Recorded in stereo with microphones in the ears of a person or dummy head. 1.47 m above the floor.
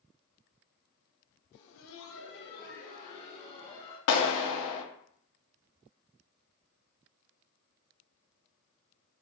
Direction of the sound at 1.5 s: 60° left (ahead or behind).